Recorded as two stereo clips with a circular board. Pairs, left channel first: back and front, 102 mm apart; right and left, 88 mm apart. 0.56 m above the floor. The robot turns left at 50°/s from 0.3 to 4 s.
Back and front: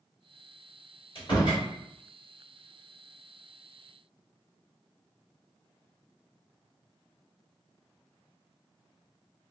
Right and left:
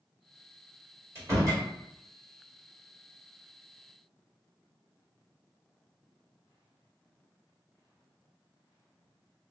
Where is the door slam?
150° left, 1.9 m; by 1.6 s 125° left, 1.9 m.